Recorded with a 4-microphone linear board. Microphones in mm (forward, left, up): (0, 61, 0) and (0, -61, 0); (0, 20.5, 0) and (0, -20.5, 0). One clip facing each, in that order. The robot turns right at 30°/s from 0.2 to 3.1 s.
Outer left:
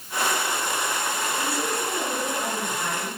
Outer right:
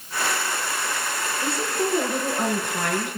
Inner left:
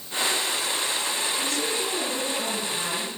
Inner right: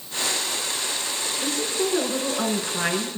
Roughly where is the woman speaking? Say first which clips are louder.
Outer right 2 dB, inner right 2 dB; behind right.